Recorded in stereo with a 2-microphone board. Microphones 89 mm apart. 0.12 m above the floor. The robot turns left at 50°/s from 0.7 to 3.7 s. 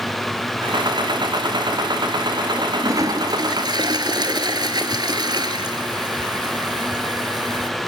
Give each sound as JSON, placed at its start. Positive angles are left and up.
{"t": 2.6, "sound": "a toilet flushing", "azimuth_deg": -35, "distance_m": 0.9}